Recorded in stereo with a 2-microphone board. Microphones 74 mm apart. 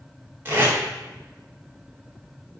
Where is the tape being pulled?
35° right (ahead or behind), 1.9 m.